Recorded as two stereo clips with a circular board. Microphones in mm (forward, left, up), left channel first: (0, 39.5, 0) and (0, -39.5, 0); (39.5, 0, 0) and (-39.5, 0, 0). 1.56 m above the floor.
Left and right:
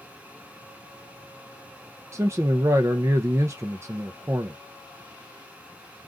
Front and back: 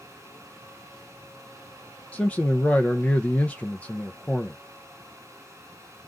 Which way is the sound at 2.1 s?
65° right.